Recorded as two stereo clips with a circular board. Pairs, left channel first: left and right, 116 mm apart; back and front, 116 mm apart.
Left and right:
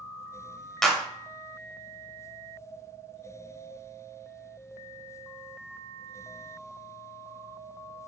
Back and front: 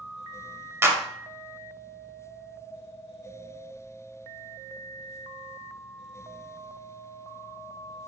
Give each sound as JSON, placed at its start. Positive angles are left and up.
{"t": 0.8, "sound": "a clap", "azimuth_deg": 10, "distance_m": 0.7}